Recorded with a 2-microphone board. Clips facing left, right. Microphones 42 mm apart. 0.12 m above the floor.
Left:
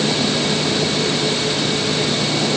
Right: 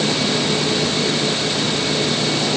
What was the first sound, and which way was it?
Only background noise.